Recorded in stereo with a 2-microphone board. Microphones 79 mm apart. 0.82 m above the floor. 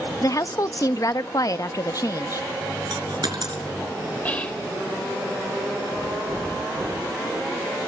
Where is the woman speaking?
45° left (ahead or behind), 0.8 m.